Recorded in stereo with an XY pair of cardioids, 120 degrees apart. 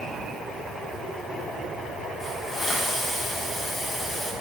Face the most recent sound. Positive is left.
turn(degrees=20)